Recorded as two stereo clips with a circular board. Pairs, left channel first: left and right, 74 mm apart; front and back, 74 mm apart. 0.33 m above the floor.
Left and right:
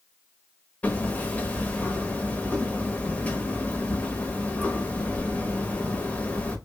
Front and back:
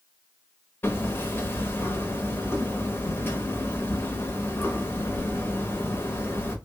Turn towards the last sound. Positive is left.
turn(degrees=35)